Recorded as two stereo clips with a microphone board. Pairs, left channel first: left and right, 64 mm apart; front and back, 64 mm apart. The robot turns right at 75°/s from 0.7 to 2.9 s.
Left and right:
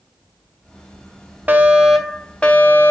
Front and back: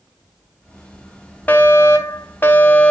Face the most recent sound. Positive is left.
turn(degrees=65)